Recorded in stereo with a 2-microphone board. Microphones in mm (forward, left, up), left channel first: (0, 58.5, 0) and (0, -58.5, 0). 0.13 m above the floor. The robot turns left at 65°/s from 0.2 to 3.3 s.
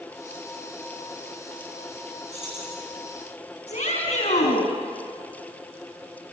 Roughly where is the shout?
Left.